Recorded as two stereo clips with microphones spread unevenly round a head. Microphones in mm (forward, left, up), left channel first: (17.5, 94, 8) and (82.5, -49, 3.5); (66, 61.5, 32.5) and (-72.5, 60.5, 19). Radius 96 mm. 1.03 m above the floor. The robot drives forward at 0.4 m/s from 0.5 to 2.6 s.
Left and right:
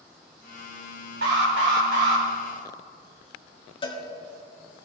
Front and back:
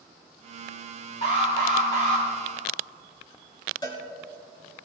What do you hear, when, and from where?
1.2 s an alarm: 60° right, 3 m; by 2.2 s 65° right, 2.5 m
3.8 s a cowbell: 60° left, 2.5 m